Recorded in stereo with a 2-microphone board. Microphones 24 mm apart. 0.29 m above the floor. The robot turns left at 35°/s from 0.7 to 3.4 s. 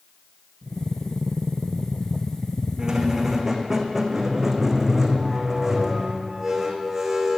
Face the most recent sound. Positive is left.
turn(degrees=-15)  # may be behind; listen again after turning